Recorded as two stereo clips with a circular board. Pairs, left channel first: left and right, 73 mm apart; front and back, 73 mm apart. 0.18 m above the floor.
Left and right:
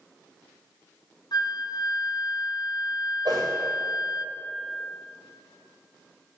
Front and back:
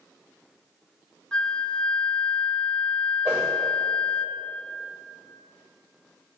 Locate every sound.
1.3 s a flute: 80° left, 0.9 m
3.2 s a whoosh: 120° right, 7 m